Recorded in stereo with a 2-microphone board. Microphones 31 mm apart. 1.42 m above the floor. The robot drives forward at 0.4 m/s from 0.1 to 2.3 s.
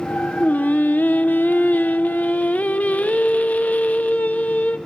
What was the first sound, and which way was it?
Singing, 55° left (ahead or behind).